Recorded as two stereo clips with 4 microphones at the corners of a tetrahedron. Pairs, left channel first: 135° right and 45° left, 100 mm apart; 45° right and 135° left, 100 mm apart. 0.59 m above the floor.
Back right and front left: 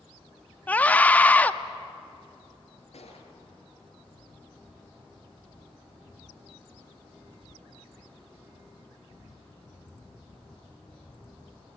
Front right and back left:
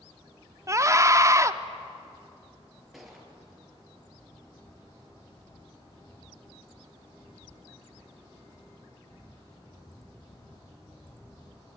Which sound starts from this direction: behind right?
A gunshot, at 2.9 s.